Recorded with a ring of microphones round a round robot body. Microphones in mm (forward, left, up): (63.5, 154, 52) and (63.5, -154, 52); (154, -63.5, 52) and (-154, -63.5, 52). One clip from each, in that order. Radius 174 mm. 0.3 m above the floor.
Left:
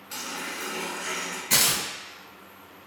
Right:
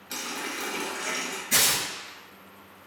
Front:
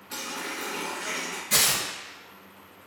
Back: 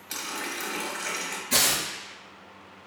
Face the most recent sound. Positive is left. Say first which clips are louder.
# left 1 dB, even
turn(degrees=75)